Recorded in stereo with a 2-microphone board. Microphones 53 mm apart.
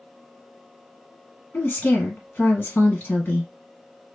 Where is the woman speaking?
40° left (ahead or behind), 2 m.